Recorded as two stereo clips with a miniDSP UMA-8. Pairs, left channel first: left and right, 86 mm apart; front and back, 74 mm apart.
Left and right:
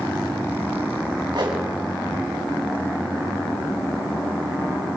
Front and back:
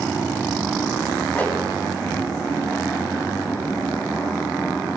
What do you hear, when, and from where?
1.3 s a whoosh: 70° right, 4 m